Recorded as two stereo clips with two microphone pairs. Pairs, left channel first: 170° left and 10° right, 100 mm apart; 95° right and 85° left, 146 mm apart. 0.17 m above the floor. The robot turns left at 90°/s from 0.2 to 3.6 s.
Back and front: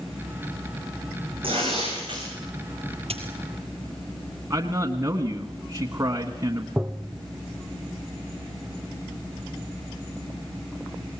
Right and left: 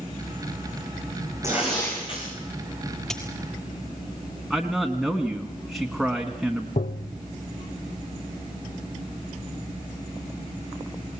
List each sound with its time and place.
1.4 s tearing paper: 15° left, 7 m; by 2.2 s 60° right, 7 m
3.1 s a dropped coin: 10° right, 5.5 m; by 3.2 s 25° right, 5.5 m
4.5 s a man speaking: 5° right, 1.2 m
6.8 s tapping: 90° right, 1.0 m